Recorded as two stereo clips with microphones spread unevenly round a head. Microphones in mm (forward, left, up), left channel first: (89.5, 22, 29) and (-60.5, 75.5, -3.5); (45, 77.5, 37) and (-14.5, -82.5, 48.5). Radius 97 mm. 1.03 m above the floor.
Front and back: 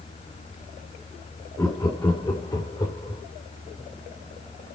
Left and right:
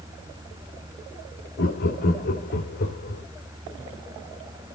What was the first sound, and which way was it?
Laughter, 50° left.